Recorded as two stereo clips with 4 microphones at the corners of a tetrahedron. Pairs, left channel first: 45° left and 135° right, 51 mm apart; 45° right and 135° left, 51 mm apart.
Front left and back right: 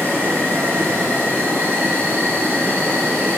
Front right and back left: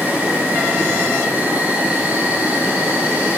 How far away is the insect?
About 5 m.